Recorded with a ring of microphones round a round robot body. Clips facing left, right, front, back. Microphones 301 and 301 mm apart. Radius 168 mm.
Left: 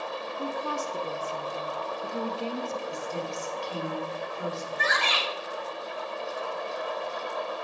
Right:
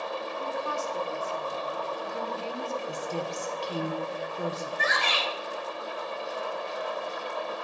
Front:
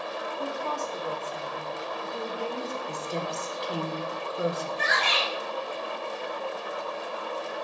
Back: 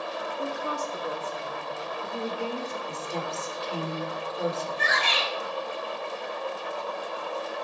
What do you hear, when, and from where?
0.3 s a woman speaking: 105° left, 0.8 m
2.9 s a woman speaking: 65° right, 1.9 m
4.8 s a shout: 50° left, 4 m